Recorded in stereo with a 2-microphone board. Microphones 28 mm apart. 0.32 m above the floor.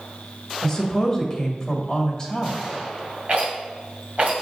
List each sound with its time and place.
0.6 s a woman speaking: 25° left (ahead or behind), 1.5 m
3.3 s a rattle: 50° right (ahead or behind), 2 m